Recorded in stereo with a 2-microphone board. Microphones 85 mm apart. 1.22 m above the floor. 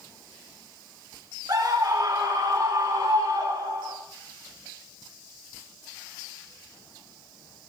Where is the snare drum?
I don't hear a snare drum.